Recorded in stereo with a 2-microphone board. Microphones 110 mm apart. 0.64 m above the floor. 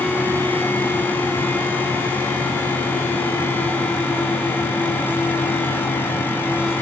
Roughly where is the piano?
No piano in this recording.